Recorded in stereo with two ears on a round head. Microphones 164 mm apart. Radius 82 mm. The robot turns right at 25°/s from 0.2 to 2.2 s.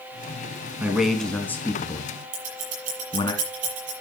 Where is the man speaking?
5° right (ahead or behind), 3.5 m; by 3.3 s 25° left (ahead or behind), 3.5 m.